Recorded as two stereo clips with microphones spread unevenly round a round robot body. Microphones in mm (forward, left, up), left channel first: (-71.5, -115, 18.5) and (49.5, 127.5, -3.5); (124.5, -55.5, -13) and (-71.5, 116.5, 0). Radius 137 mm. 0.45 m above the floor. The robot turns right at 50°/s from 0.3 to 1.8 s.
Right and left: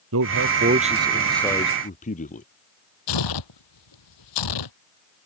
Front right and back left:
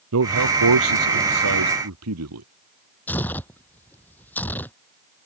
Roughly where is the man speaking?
Left.